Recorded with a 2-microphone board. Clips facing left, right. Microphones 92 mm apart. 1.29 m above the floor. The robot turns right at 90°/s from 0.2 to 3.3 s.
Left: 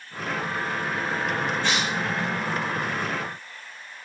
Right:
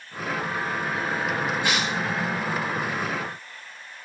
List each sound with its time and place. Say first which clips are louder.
1.6 s tearing paper: even; 15° right (ahead or behind), 6 m; by 1.9 s 15° left (ahead or behind), 6 m